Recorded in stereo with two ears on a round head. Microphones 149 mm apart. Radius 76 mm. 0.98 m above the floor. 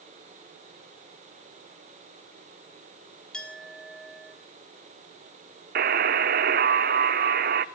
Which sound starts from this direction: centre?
A clink, at 3.3 s.